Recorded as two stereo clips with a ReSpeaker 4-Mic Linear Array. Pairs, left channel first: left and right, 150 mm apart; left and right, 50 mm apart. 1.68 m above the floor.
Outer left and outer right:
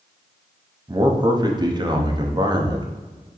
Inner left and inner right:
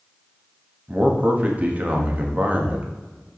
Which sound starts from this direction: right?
A man speaking, at 0.9 s.